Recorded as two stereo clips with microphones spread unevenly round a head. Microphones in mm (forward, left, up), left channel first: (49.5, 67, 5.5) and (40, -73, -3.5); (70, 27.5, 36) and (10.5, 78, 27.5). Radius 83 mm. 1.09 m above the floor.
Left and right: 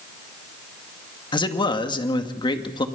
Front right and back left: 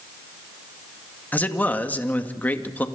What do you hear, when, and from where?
1.3 s a man speaking: 30° left, 2 m